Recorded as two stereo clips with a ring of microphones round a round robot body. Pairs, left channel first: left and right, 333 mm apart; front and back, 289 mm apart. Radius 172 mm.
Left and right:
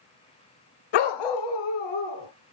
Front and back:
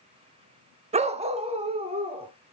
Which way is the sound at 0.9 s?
110° left.